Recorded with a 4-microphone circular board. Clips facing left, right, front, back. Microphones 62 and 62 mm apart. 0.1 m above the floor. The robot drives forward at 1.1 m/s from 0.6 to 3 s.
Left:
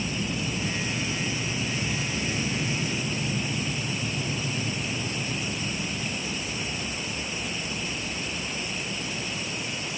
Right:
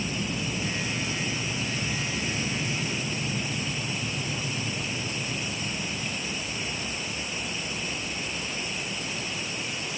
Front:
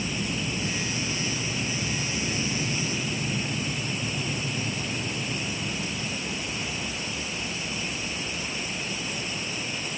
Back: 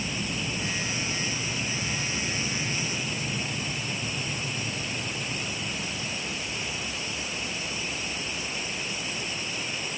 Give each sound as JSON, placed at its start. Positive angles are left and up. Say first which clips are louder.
{"t": 0.0, "sound": "an aircraft", "louder": "left 1 dB, front 2 dB", "azimuth_deg": 10}